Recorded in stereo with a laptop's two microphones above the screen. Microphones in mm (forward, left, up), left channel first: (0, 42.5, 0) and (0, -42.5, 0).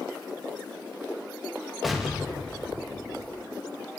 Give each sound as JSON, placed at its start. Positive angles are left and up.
{"t": 1.8, "sound": "an explosion", "side_deg": 0, "distance_m": 0.7}